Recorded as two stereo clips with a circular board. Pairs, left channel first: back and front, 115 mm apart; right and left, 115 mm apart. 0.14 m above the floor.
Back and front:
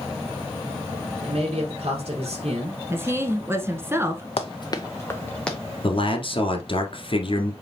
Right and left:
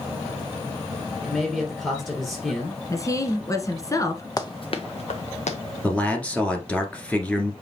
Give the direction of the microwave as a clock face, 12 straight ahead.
I don't hear a microwave.